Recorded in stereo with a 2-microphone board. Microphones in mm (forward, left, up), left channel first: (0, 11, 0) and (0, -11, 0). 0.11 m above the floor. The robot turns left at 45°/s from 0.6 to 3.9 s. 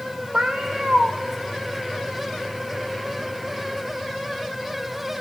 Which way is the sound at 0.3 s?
60° right (ahead or behind).